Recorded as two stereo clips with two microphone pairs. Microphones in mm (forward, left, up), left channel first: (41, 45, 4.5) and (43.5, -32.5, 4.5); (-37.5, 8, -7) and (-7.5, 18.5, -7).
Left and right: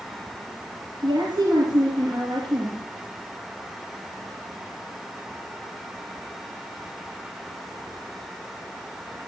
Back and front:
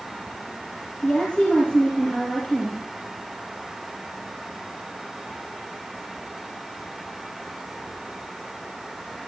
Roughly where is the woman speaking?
Right.